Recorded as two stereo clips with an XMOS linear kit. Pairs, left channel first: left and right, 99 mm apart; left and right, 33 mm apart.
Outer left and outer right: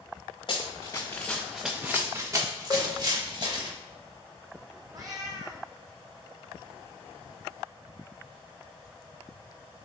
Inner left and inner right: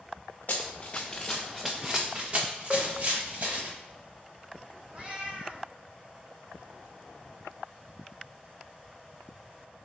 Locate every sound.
0.5 s running footsteps: 55° left (ahead or behind), 0.6 m; by 3.7 s 50° right (ahead or behind), 1.4 m
2.7 s a cowbell: 65° left (ahead or behind), 0.5 m
4.9 s a cat meowing: 40° right (ahead or behind), 0.6 m